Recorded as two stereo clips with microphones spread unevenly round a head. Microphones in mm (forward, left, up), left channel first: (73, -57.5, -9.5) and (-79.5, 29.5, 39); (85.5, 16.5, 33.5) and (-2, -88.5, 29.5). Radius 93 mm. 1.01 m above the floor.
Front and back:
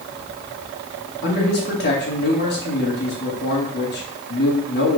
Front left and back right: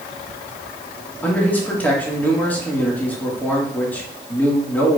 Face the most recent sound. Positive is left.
turn(degrees=-30)